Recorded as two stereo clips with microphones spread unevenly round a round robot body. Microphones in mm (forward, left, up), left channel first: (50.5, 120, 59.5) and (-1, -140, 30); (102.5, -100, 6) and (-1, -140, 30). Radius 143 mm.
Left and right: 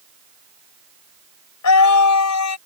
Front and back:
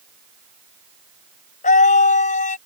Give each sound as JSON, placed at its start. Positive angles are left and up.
{"t": 1.6, "sound": "a scream", "azimuth_deg": 50}